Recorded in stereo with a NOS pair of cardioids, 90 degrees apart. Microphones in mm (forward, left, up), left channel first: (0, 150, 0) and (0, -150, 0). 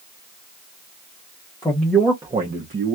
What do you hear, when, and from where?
1.6 s a man speaking: 15° left, 0.8 m; by 3.0 s 45° right, 0.9 m